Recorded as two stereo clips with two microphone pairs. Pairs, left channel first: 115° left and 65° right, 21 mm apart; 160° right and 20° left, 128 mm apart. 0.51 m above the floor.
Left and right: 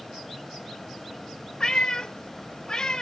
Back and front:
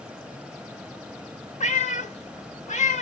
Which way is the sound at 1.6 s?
170° left.